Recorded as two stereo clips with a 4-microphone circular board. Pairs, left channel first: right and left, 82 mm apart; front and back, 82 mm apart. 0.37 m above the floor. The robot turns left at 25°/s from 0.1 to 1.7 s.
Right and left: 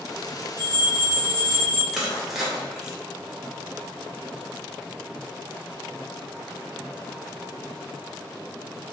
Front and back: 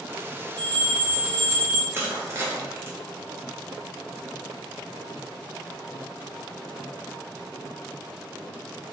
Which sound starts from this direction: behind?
Crushing, at 1.9 s.